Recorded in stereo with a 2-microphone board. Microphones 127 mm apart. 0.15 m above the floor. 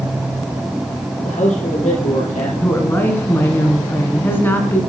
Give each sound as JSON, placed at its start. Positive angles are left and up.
{"t": 1.2, "sound": "a man speaking", "side_deg": 75, "distance_m": 4.0}
{"t": 2.6, "sound": "a woman speaking", "side_deg": 15, "distance_m": 1.4}